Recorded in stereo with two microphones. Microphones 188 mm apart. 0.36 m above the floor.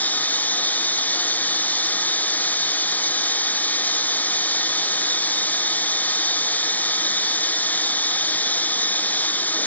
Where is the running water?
10° left (ahead or behind).